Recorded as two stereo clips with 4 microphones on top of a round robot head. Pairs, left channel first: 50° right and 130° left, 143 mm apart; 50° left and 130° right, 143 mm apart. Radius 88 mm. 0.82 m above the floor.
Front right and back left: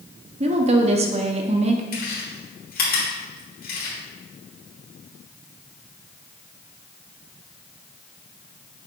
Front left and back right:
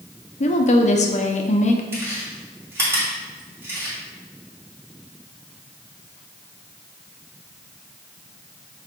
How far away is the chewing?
About 2.5 m.